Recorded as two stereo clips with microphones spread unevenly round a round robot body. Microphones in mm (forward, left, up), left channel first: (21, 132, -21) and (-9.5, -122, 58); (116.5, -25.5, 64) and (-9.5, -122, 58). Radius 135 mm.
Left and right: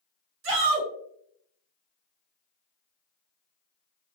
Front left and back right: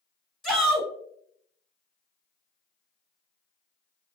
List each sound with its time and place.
0.4 s a shout: 50° right, 1.6 m